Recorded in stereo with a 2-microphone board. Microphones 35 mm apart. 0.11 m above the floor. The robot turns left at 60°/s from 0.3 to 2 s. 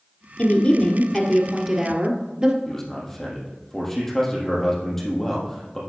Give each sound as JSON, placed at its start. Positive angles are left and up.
{"t": 0.4, "sound": "a woman speaking", "azimuth_deg": 50, "distance_m": 1.5}
{"t": 2.6, "sound": "a man speaking", "side_deg": 10, "distance_m": 3.0}